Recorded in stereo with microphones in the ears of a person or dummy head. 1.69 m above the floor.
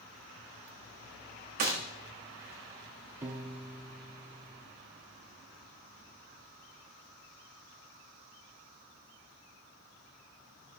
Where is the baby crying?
No baby crying in this recording.